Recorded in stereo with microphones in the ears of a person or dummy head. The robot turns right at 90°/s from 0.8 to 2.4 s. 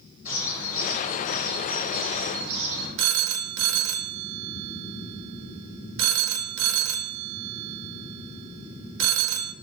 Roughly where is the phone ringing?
Right.